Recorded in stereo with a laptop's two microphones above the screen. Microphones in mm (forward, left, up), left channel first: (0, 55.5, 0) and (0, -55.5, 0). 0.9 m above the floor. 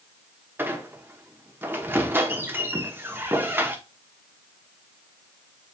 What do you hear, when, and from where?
0.6 s a squeak: 20° right (ahead or behind), 1.0 m